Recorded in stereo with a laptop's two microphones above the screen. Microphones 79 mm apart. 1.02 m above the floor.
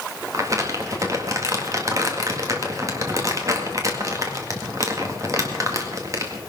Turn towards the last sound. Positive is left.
turn(degrees=-40)  # may be behind; listen again after turning